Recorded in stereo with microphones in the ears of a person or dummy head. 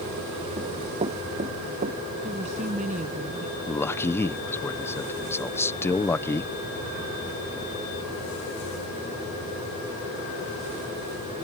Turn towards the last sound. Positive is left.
turn(degrees=10)  # may be behind; listen again after turning